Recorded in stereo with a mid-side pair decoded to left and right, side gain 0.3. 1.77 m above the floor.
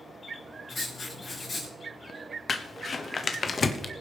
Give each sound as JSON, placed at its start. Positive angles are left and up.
{"t": 0.7, "sound": "writing", "azimuth_deg": 55, "distance_m": 5.0}
{"t": 2.5, "sound": "crumpling", "azimuth_deg": 55, "distance_m": 1.1}